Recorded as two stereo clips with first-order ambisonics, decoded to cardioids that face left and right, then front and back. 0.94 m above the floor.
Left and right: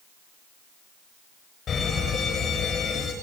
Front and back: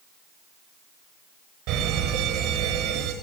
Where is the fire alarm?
155° left, 8 m.